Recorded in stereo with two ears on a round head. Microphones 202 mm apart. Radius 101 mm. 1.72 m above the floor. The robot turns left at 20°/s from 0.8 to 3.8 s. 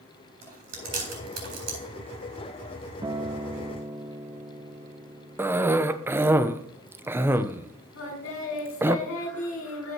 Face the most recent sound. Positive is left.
turn(degrees=75)  # may be behind; listen again after turning